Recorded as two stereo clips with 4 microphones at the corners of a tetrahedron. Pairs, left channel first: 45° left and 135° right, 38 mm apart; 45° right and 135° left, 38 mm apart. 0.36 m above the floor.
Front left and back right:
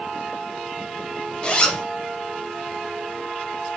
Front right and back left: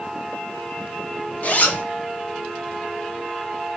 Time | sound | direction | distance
1.4 | a zipper | 15° right | 0.7 m